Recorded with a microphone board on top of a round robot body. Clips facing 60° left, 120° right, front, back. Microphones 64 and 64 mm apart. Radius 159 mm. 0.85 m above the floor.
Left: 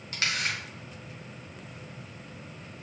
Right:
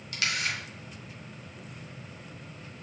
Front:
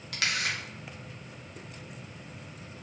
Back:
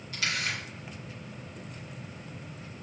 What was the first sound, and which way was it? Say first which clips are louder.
A camera shutter: left 1 dB, front 1 dB; 5° left.